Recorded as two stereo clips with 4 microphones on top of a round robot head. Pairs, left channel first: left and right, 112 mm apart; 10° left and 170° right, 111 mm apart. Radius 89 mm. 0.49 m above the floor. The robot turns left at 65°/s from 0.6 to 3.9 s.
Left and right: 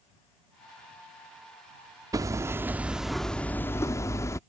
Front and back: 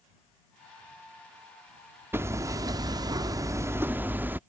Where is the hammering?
115° right; by 4.4 s 130° left.